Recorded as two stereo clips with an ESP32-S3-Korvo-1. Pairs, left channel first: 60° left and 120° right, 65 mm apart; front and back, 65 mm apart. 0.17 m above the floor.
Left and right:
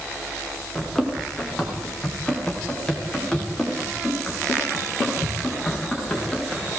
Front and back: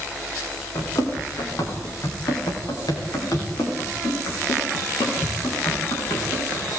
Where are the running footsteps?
25° right, 9 m; by 6.7 s 15° right, 15.5 m.